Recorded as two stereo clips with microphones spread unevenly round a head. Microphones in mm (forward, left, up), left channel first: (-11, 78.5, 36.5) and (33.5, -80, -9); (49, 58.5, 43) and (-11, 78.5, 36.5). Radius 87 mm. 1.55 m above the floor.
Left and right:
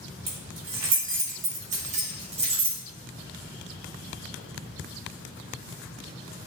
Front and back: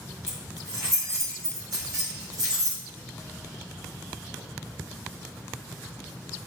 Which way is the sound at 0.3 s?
110° right.